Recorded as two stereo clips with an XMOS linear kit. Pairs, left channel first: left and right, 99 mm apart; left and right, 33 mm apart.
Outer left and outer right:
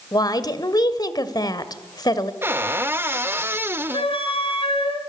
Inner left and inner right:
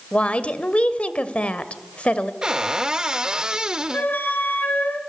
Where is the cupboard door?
25° right (ahead or behind), 1.1 m.